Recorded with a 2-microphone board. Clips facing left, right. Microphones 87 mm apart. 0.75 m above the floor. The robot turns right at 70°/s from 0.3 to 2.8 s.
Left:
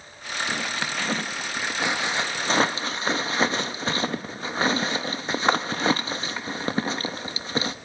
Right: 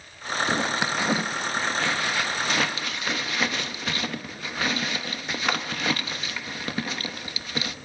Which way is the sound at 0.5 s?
25° right (ahead or behind).